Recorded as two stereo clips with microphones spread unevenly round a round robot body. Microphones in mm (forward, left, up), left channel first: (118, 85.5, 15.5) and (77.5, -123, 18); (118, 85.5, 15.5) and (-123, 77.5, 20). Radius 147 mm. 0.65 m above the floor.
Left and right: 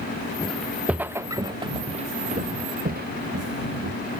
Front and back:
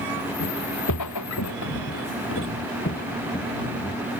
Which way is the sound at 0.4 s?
5° right.